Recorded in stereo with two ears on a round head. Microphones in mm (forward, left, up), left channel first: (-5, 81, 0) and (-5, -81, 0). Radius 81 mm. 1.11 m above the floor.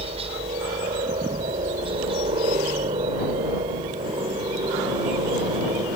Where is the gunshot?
No gunshot in this recording.